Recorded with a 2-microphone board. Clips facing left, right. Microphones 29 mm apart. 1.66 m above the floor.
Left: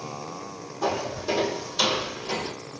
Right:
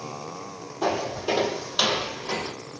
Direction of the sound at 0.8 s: 40° right (ahead or behind).